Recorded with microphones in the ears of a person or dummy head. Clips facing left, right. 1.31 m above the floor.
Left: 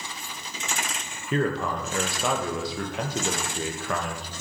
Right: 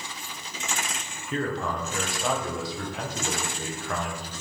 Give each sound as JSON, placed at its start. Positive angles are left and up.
{"t": 1.3, "sound": "a man speaking", "side_deg": 55, "distance_m": 0.7}